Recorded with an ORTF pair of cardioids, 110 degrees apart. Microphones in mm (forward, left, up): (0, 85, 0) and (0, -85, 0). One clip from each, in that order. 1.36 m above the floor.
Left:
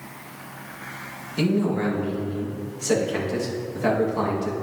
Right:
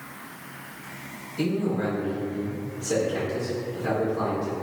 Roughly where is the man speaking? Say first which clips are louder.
Left 3 dB; left.